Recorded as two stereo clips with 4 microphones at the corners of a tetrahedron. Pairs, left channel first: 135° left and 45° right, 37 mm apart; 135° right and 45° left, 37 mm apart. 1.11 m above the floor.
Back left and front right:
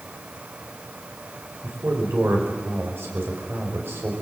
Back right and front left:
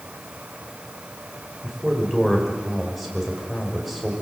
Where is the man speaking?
45° right, 6 m.